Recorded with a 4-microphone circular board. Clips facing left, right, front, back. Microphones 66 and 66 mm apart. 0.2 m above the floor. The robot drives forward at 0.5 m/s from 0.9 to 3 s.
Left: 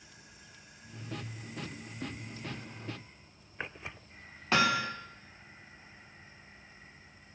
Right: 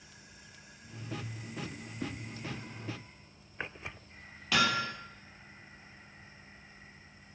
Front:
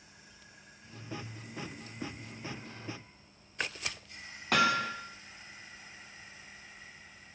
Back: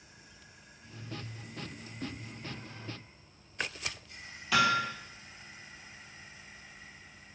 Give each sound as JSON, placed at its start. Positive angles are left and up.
{"t": 2.0, "sound": "a whoosh", "azimuth_deg": -60, "distance_m": 3.5}
{"t": 4.5, "sound": "hammering", "azimuth_deg": 35, "distance_m": 1.8}